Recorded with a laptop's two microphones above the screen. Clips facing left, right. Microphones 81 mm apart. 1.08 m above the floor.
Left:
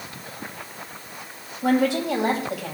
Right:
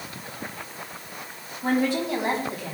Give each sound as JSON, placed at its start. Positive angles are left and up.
{"t": 1.6, "sound": "a woman speaking", "side_deg": 75, "distance_m": 5.5}